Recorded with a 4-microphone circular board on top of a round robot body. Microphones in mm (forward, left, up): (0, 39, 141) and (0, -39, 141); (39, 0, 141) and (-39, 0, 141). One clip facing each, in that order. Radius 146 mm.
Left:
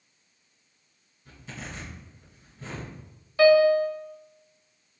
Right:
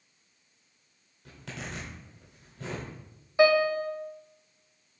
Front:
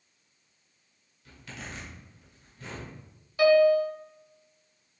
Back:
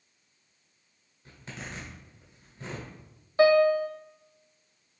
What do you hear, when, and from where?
1.2 s a zipper: 115° right, 1.5 m
3.4 s a piano: 155° right, 1.0 m